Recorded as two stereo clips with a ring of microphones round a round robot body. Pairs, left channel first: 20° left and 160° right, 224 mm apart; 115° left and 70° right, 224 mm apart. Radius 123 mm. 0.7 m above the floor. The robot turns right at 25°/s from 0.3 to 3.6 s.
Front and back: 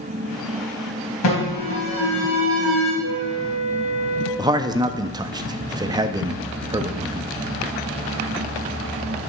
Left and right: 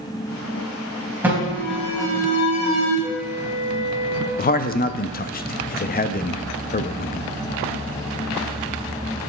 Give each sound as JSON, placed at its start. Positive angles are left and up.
{"t": 1.2, "sound": "an alarm", "azimuth_deg": 15, "distance_m": 4.0}
{"t": 3.0, "sound": "a flute", "azimuth_deg": -150, "distance_m": 0.9}
{"t": 4.4, "sound": "a man speaking", "azimuth_deg": 140, "distance_m": 0.6}